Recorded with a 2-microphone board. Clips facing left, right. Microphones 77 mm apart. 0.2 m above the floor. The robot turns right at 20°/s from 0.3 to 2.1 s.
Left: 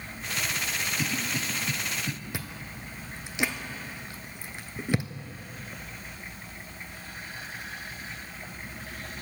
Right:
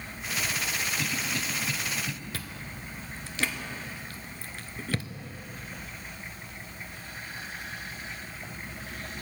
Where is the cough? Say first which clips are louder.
Left 1 dB; 20° left (ahead or behind), 1.0 m; by 2.1 s 15° left (ahead or behind), 1.0 m.